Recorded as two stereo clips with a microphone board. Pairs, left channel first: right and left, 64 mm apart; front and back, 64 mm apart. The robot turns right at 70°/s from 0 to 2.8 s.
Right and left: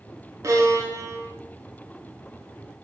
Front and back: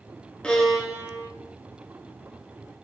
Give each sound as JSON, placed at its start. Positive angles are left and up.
{"t": 0.4, "sound": "a violin", "azimuth_deg": 75, "distance_m": 0.6}